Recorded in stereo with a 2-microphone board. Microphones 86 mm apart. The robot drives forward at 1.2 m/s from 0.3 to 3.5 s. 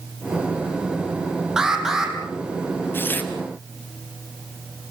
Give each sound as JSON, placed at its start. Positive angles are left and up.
{"t": 1.6, "sound": "an alarm", "side_deg": -10, "distance_m": 3.5}
{"t": 2.9, "sound": "tearing paper", "side_deg": 25, "distance_m": 2.0}